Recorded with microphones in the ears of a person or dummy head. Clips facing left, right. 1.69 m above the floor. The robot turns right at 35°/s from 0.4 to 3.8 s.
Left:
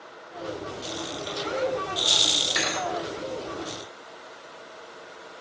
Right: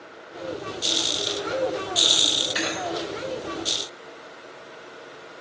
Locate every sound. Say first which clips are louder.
2.5 s a thud: even; 5° right (ahead or behind), 2.0 m; by 2.9 s centre (ahead or behind), 2.0 m